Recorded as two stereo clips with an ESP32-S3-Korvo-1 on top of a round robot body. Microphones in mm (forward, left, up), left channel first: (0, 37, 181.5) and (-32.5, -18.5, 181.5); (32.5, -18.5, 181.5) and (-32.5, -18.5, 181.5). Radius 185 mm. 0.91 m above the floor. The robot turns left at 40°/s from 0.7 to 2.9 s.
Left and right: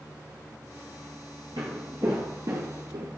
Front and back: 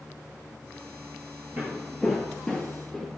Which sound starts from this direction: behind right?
Footsteps, at 1.6 s.